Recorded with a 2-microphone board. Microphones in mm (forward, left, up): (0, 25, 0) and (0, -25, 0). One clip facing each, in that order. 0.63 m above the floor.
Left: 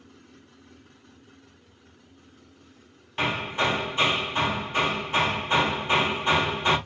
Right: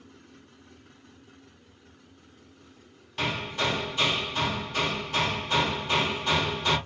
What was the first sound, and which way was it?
Hammering, 25° left (ahead or behind).